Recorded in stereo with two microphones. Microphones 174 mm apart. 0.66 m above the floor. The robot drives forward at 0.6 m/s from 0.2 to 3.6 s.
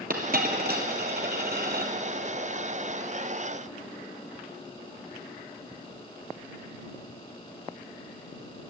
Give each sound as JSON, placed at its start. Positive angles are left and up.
{"t": 0.1, "sound": "a dropped coin", "side_deg": -55, "distance_m": 1.5}